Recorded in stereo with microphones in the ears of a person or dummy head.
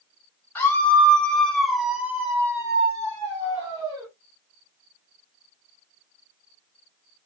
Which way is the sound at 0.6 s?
10° left (ahead or behind).